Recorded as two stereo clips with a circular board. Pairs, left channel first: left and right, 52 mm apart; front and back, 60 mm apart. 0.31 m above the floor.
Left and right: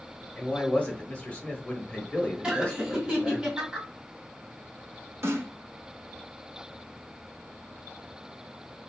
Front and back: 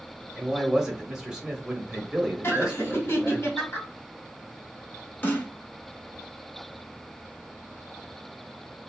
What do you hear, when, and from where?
0.4 s a man speaking: 120° left, 0.9 m
2.4 s laughter: 25° right, 1.8 m
5.2 s a snare drum: 60° right, 0.8 m